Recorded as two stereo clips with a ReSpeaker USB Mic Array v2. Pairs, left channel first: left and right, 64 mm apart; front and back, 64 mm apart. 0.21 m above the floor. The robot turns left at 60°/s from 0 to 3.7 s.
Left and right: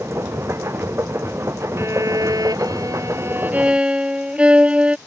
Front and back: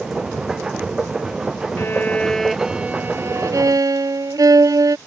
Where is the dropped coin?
No dropped coin in this recording.